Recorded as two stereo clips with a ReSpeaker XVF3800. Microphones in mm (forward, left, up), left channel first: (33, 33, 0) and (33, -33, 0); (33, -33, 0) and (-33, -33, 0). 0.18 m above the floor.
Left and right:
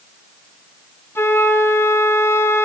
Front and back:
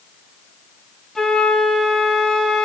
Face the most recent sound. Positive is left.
turn(degrees=80)